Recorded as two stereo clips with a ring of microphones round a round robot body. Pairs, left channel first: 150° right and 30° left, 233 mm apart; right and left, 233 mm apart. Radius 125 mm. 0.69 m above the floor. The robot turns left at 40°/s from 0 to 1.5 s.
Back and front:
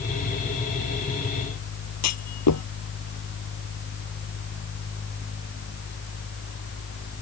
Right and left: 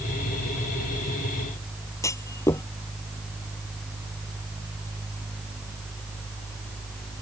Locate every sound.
2.0 s a clunk: 170° right